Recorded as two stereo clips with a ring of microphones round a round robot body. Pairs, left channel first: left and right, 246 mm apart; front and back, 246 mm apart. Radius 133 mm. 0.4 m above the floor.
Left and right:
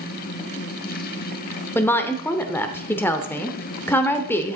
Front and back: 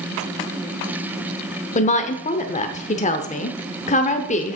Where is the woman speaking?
20° left, 1.0 m.